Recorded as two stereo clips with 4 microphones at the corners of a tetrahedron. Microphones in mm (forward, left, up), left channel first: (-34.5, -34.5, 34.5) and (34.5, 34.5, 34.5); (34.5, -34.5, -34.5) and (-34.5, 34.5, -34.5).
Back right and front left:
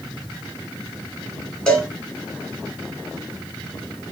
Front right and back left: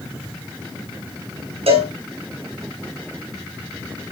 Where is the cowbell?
145° left, 5 m.